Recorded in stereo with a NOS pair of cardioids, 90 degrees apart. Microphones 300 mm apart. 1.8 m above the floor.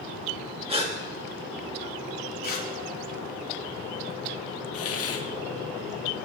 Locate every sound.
0.7 s a gasp: 20° right, 3 m
2.4 s tearing paper: 30° left, 3 m
4.7 s a hiss: 50° left, 1.4 m